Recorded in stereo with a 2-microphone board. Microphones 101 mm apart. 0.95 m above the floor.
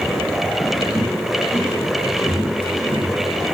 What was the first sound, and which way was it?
Footsteps, 20° right (ahead or behind).